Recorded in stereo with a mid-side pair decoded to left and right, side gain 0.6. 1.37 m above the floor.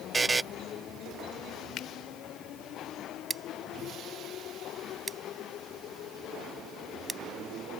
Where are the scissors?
25° right.